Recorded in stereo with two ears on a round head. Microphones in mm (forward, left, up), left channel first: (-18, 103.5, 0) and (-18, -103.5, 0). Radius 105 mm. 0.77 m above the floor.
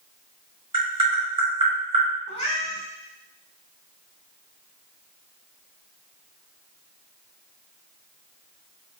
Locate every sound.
0.7 s tapping: 20° right (ahead or behind), 1.3 m
2.3 s a cat meowing: 25° left (ahead or behind), 0.7 m